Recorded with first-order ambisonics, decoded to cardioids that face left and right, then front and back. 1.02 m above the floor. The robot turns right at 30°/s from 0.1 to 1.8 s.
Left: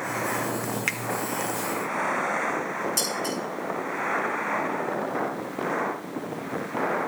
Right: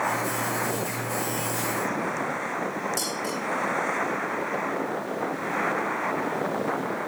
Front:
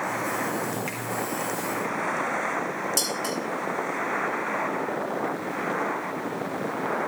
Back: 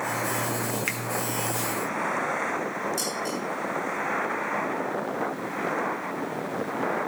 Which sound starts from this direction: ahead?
Dishes clattering, at 3.0 s.